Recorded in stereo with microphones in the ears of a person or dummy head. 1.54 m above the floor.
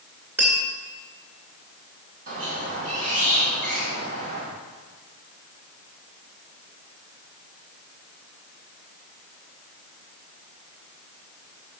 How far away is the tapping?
About 2.0 m.